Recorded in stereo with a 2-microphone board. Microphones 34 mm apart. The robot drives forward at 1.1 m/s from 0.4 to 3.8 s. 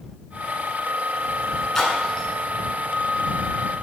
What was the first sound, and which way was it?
A splash, 15° left (ahead or behind).